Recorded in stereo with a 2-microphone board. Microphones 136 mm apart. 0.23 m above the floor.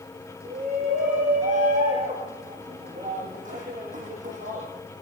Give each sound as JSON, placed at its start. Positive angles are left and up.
{"t": 0.5, "sound": "a shout", "side_deg": -80, "distance_m": 7.0}